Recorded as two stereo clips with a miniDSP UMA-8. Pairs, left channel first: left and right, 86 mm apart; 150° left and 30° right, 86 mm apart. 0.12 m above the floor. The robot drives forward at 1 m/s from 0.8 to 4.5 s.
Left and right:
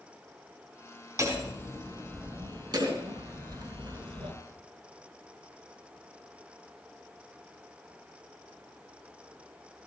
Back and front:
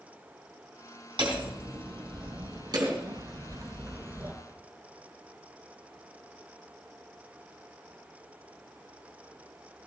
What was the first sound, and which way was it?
Hammering, 45° right.